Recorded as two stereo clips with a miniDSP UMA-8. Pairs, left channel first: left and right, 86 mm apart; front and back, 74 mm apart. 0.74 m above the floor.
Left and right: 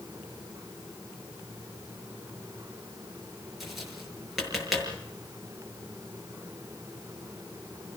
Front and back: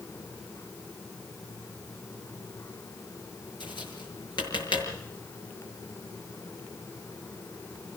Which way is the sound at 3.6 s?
Straight ahead.